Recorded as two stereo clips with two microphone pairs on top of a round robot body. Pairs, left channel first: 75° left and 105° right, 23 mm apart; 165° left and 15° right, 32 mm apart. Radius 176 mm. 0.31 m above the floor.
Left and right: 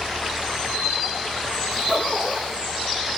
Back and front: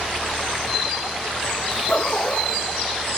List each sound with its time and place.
1.7 s a zipper: 140° right, 4.5 m